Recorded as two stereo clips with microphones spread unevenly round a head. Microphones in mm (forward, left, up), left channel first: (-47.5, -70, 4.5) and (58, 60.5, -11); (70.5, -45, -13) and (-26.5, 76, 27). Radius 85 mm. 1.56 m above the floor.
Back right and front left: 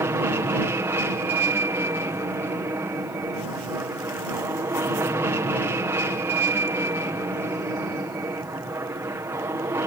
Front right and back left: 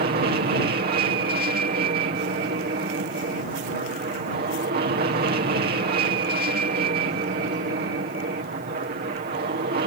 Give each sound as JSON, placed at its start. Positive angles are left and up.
{"t": 0.0, "sound": "an aircraft", "azimuth_deg": 120}